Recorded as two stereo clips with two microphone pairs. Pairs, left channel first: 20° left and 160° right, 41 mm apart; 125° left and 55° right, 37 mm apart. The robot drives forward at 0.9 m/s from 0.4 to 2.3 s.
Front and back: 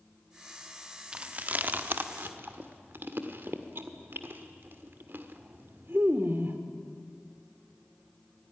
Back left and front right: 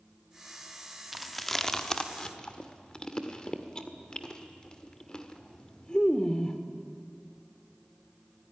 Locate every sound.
1.1 s chewing: 140° right, 0.8 m; by 6.6 s 170° right, 1.5 m